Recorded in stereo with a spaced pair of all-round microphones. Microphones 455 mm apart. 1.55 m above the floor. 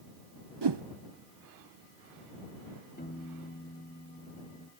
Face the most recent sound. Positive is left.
turn(degrees=20)  # may be behind; listen again after turning